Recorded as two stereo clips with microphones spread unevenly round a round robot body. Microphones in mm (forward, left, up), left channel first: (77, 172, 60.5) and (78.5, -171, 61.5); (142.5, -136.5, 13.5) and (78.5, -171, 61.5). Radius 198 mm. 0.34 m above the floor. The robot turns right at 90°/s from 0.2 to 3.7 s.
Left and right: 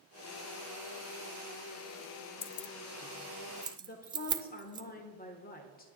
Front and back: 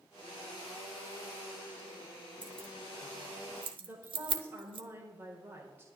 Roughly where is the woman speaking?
Left.